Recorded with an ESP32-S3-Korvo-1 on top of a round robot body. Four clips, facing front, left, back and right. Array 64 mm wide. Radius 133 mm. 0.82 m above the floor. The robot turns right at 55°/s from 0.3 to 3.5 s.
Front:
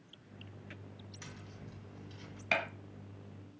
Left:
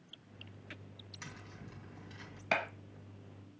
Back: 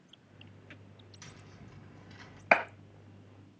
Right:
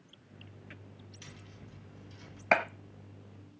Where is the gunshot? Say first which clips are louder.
Right 7 dB, back 8 dB; 150° right, 1.3 m; by 2.6 s 140° right, 1.3 m.